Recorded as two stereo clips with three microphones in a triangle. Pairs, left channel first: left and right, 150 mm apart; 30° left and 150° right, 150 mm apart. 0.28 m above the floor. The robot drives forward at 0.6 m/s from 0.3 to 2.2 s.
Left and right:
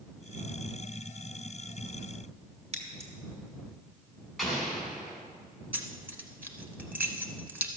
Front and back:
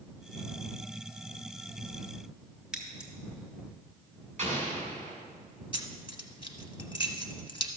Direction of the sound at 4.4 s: Straight behind.